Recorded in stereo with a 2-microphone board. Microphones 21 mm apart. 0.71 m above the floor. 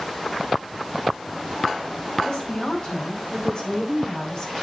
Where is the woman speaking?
50° left (ahead or behind), 7.5 m; by 4.5 s 40° left (ahead or behind), 4.5 m.